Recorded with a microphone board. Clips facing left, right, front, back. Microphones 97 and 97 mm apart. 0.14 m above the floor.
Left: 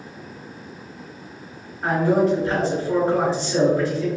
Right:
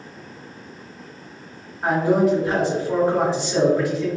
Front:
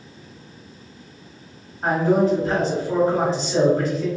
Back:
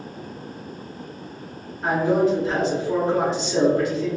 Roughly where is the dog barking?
No dog barking in this recording.